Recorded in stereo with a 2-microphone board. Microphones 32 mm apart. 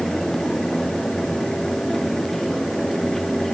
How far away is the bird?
No bird in this recording.